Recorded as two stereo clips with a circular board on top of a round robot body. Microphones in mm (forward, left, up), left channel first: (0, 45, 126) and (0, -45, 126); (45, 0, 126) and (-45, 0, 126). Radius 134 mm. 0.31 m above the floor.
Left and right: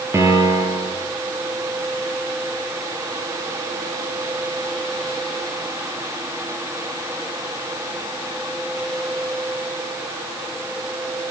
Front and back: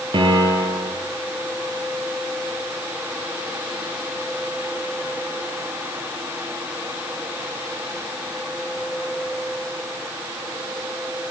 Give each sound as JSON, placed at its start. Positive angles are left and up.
{"t": 0.1, "sound": "a piano", "azimuth_deg": -150, "distance_m": 5.5}